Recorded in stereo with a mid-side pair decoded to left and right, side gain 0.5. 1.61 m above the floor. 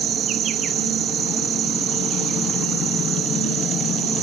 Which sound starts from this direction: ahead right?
An insect, at 0.0 s.